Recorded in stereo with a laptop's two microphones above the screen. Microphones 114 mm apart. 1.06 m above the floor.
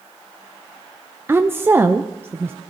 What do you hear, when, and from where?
1.3 s a woman speaking: 20° right (ahead or behind), 0.5 m